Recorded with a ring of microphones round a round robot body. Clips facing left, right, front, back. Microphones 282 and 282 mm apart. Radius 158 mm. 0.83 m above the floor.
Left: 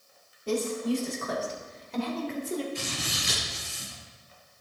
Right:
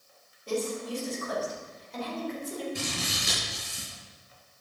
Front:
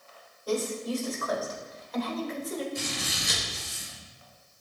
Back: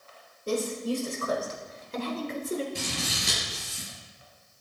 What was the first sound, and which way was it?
A woman speaking, 120° left.